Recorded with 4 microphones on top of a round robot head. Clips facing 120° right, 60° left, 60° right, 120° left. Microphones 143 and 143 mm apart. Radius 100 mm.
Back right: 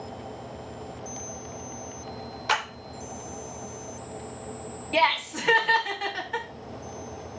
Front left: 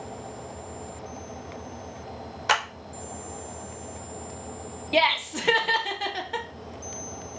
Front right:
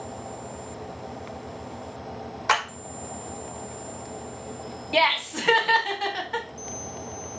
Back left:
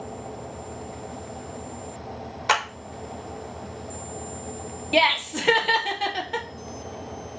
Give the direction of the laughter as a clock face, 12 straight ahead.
9 o'clock.